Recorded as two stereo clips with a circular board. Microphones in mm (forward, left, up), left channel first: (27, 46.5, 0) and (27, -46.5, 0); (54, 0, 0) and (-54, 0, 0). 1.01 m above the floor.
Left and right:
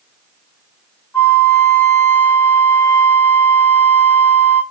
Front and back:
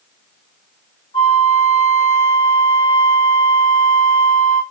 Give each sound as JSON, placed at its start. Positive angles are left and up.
{"t": 1.1, "sound": "a flute", "azimuth_deg": 20, "distance_m": 1.0}